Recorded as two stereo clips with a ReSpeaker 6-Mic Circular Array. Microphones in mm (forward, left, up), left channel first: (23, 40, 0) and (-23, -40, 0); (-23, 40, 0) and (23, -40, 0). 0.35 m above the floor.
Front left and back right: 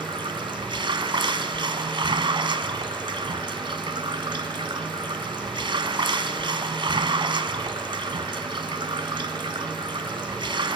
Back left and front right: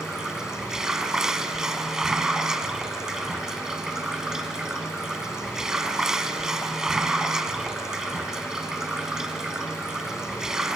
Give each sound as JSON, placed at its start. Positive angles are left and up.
{"t": 0.0, "sound": "running water", "azimuth_deg": -145, "distance_m": 1.4}